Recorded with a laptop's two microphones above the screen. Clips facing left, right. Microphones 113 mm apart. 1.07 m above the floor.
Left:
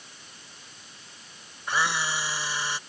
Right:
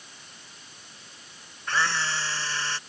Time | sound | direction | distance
1.7 | a camera shutter | 15° left (ahead or behind) | ?